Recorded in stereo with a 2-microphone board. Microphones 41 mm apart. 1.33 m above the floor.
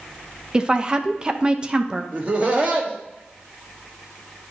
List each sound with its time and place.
0.5 s a woman speaking: 20° right (ahead or behind), 0.7 m
2.1 s laughter: 35° right (ahead or behind), 1.6 m